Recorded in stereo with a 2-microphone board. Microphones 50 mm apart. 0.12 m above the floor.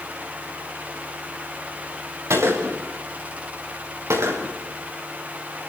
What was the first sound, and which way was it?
A gunshot, 75° right (ahead or behind).